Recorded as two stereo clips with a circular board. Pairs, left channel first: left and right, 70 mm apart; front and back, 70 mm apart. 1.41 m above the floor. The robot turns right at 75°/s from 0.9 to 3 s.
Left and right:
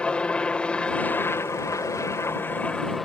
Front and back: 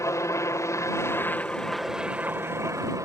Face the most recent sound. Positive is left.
turn(degrees=180)